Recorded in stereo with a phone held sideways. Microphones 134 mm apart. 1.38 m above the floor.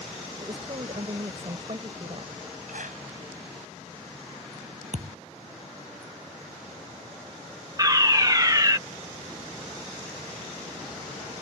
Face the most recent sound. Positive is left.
turn(degrees=-30)  # may be behind; listen again after turning